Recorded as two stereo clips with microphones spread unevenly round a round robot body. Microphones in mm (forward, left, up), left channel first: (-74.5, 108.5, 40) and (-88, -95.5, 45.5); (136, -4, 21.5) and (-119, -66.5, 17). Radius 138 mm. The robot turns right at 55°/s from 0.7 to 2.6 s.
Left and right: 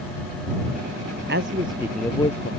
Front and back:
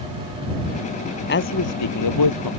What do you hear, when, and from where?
1.3 s a man speaking: 40° right; by 2.5 s 25° left